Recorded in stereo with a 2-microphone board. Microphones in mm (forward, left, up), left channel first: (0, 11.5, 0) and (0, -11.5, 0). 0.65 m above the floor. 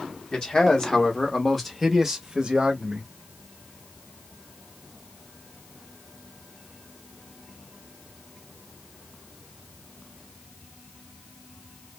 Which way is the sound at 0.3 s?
45° left (ahead or behind).